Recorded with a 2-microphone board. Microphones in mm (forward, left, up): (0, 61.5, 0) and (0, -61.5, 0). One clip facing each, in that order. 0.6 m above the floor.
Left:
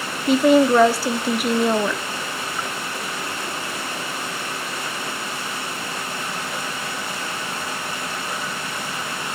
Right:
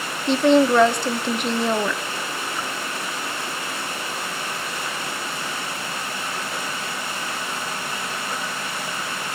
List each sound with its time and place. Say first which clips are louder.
0.3 s a woman speaking: left 1 dB; 5° left (ahead or behind), 0.6 m